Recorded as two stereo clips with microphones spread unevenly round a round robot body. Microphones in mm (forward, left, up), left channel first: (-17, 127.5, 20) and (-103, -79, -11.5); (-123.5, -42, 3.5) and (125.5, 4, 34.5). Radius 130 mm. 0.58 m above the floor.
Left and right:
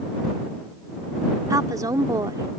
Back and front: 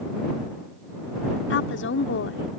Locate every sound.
1.5 s a woman speaking: straight behind